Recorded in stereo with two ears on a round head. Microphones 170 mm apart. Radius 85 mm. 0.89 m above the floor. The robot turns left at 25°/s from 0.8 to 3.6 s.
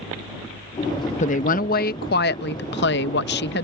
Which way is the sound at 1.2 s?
135° left.